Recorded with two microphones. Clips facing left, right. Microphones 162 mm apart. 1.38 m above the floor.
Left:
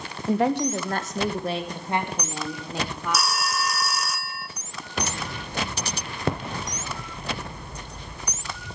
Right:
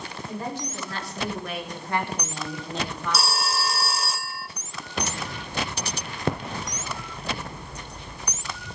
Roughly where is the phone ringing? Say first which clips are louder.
Even; right.